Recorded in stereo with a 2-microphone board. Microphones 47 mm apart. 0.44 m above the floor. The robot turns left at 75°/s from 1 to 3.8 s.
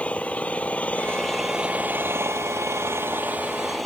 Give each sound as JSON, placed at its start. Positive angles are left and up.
{"t": 0.0, "sound": "an engine running", "azimuth_deg": 30}